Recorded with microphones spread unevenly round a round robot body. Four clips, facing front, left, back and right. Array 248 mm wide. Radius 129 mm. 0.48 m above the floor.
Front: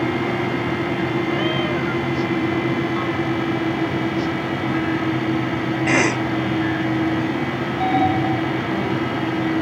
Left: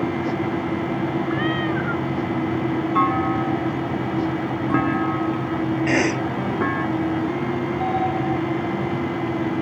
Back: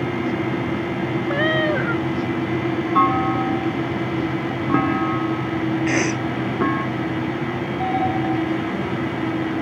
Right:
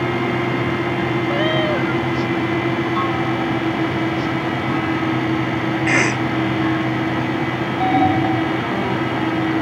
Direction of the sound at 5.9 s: 15° left.